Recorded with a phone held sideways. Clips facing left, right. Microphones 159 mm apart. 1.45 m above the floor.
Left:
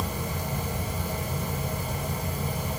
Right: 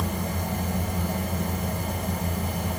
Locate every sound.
0.0 s a fan: 50° right (ahead or behind), 4.5 m